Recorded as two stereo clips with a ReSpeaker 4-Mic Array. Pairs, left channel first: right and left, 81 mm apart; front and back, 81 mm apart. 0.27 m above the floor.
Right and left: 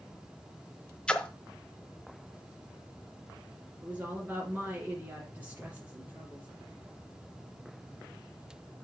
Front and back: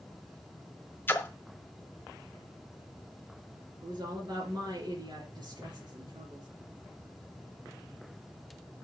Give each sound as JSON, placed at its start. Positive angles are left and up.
{"t": 1.1, "sound": "a splash", "azimuth_deg": -25, "distance_m": 1.3}
{"t": 3.8, "sound": "a woman speaking", "azimuth_deg": 155, "distance_m": 5.0}